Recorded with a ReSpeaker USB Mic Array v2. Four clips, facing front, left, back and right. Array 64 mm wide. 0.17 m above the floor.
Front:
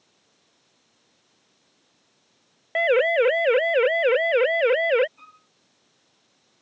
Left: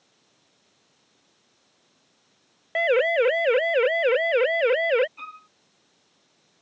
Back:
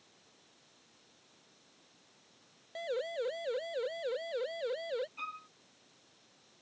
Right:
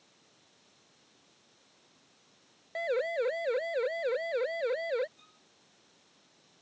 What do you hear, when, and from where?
2.8 s a siren: 30° left; by 5.1 s 35° left
5.2 s a violin: 115° left